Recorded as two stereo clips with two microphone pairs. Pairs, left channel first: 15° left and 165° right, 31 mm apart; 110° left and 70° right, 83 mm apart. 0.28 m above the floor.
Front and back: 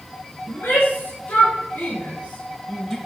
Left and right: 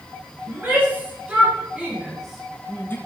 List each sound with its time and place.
0.5 s a shout: 5° right, 3.5 m; by 3.0 s 80° left, 1.0 m